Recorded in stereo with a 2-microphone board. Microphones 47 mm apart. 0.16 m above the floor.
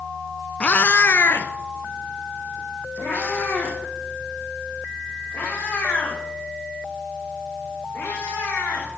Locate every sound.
0.6 s a cat meowing: 25° left (ahead or behind), 0.6 m; by 8.9 s 60° left (ahead or behind), 10 m